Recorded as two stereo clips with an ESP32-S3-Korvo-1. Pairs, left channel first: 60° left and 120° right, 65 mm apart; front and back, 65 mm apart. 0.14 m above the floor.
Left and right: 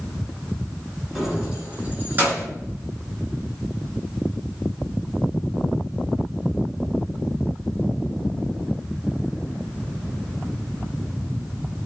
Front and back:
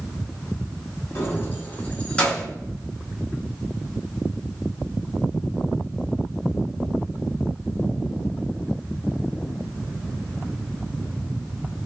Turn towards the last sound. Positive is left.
turn(degrees=-75)